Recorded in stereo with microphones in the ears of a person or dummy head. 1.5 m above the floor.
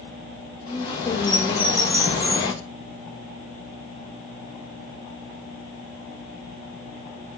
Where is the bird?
25° left (ahead or behind), 1.4 m.